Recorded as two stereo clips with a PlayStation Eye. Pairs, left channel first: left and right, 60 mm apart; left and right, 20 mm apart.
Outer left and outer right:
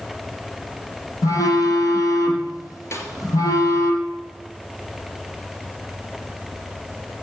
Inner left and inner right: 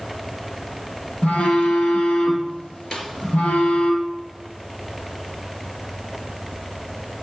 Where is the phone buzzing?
80° left, 3 m.